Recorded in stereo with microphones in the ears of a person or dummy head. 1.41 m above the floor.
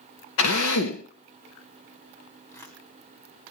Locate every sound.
0.4 s a drill: 65° left (ahead or behind), 2.0 m
2.5 s tearing paper: 10° left (ahead or behind), 3.5 m